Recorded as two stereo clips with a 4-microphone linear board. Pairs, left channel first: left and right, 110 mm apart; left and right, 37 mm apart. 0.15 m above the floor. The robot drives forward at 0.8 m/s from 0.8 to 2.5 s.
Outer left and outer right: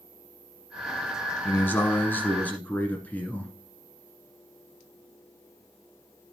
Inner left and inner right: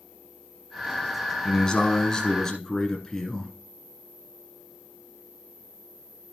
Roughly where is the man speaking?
Centre.